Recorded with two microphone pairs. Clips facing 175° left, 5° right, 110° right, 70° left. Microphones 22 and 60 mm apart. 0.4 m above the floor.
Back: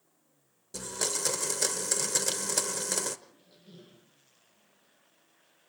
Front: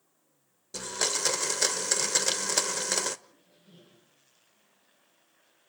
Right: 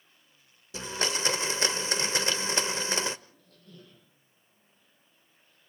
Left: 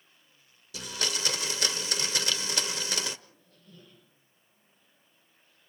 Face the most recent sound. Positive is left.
turn(degrees=-140)